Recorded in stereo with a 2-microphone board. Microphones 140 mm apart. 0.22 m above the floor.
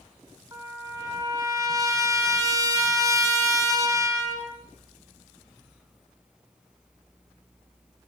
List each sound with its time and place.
0.5 s a trumpet: 25° right (ahead or behind), 1.5 m